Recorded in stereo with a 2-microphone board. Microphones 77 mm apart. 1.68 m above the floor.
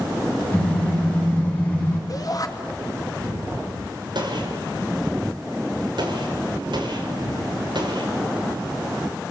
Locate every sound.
0.5 s a car horn: 15° left (ahead or behind), 5.5 m; by 2.0 s 20° left (ahead or behind), 7.5 m
2.1 s a shout: 50° left (ahead or behind), 2.5 m
4.2 s a gunshot: 70° right (ahead or behind), 5 m